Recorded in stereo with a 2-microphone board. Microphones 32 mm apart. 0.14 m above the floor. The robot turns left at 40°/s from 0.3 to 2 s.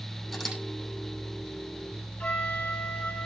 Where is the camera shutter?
5° left (ahead or behind), 6.5 m; by 0.6 s 15° left (ahead or behind), 6.5 m.